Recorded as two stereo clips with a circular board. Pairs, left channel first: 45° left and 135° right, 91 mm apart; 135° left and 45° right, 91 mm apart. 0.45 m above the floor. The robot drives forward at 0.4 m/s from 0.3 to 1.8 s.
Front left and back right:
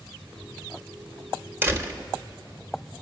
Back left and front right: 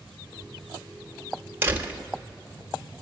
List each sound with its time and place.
1.6 s a door slam: 90° right, 0.6 m; by 2.0 s 100° right, 0.6 m